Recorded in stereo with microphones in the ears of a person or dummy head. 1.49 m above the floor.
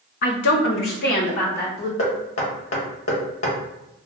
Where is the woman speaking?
55° left (ahead or behind), 0.5 m; by 1.9 s 45° left (ahead or behind), 1.1 m.